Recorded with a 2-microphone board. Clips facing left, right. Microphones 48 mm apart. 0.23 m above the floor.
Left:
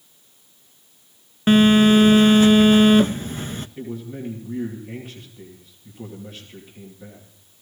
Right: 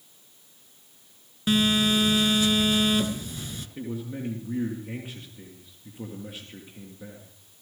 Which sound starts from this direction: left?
A phone buzzing, at 1.5 s.